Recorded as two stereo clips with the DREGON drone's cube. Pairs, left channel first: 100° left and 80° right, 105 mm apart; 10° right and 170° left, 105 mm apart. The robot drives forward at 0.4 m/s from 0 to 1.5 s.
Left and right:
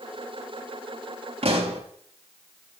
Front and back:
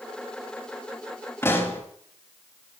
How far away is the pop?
About 5 m.